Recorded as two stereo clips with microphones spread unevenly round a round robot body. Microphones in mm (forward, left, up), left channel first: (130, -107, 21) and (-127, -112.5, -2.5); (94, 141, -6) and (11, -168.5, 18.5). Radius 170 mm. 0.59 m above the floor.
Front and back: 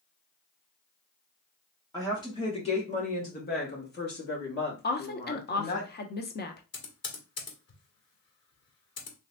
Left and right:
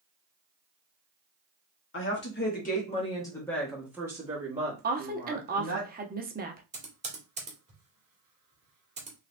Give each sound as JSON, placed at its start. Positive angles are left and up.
{"t": 1.9, "sound": "a woman speaking", "azimuth_deg": 80, "distance_m": 1.3}
{"t": 4.8, "sound": "a woman speaking", "azimuth_deg": -45, "distance_m": 0.8}
{"t": 6.7, "sound": "typing on a keyboard", "azimuth_deg": -35, "distance_m": 1.7}